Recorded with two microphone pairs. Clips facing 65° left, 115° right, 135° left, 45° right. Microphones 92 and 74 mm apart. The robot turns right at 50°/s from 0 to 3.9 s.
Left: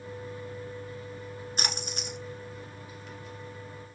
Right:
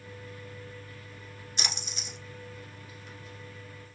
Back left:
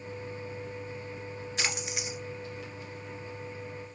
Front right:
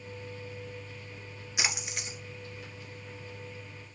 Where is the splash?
30° left, 1.0 m; by 2.2 s 60° left, 1.0 m.